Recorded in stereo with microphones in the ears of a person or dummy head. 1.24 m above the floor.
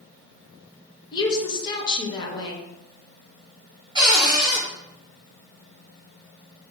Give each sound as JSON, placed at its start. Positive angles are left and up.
{"t": 1.1, "sound": "a woman speaking", "side_deg": 20, "distance_m": 0.5}
{"t": 4.0, "sound": "a cupboard door", "side_deg": -20, "distance_m": 1.2}